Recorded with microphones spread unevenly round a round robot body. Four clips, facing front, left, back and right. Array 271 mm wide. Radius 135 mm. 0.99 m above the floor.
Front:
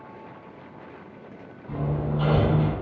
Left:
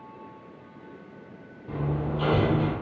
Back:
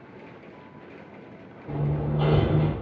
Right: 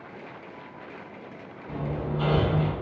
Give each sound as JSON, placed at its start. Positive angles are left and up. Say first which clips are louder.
{"t": 1.7, "sound": "hammering", "louder": "left 1 dB, even", "azimuth_deg": 170, "distance_m": 0.9}